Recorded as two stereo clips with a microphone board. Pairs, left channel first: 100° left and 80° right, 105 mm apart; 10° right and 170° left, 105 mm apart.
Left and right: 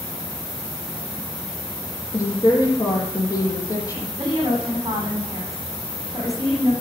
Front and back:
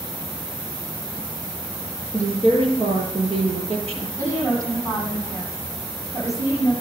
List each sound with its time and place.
2.1 s a woman speaking: 155° left, 7 m
4.2 s a woman speaking: 135° right, 9.5 m